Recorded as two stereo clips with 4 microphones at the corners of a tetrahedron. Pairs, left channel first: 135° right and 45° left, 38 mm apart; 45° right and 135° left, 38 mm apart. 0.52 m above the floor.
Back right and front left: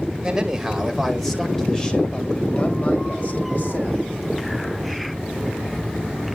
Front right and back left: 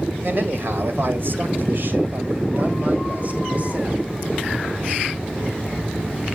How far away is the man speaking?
About 2 m.